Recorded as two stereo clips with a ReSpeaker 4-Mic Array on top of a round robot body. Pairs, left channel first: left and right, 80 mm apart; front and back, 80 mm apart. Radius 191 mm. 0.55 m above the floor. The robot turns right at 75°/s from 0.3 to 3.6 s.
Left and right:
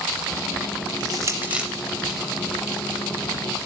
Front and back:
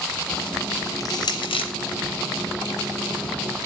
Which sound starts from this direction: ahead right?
Crushing, at 1.0 s.